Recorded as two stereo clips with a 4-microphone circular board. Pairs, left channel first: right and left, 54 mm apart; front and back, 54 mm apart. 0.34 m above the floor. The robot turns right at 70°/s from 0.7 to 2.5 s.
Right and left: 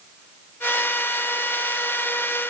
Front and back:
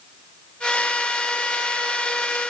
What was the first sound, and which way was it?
Only background noise.